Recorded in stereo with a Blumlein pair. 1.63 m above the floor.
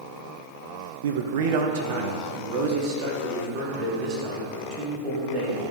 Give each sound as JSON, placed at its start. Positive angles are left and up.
{"t": 1.0, "sound": "a man speaking", "azimuth_deg": -60, "distance_m": 0.6}